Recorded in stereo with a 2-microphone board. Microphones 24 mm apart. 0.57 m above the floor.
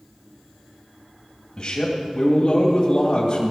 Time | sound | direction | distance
1.6 | a man speaking | 35° left (ahead or behind) | 2.5 m